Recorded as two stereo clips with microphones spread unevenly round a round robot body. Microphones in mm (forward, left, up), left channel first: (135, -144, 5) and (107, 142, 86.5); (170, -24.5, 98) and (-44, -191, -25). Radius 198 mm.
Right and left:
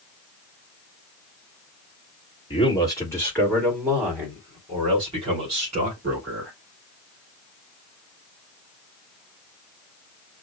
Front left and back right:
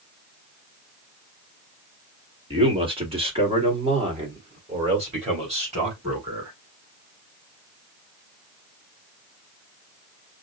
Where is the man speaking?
125° right, 1.7 m; by 6.5 s 165° left, 2.5 m.